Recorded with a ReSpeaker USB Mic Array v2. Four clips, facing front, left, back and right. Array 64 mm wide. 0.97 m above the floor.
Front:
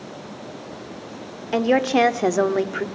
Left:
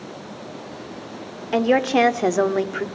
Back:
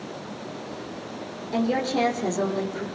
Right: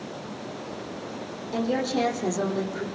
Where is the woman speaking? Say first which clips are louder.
Left 8 dB, front 6 dB; 55° left, 3 m; by 2.9 s 45° left, 2 m.